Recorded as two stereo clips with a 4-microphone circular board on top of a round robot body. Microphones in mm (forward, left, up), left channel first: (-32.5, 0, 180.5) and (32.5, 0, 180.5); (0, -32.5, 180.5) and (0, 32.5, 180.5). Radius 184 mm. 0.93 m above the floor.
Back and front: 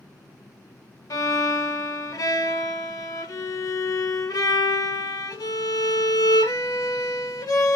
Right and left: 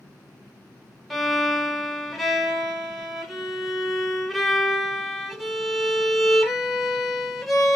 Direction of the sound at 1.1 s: Straight behind.